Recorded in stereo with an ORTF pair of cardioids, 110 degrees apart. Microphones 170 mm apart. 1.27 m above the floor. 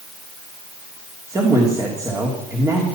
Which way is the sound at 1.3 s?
20° right.